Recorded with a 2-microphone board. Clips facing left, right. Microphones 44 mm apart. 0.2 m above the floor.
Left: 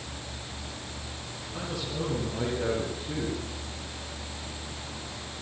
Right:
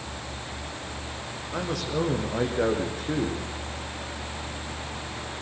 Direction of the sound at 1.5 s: 75° right (ahead or behind).